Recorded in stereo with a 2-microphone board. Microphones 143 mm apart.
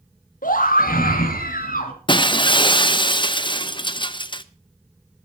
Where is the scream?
75° left (ahead or behind), 2.5 m.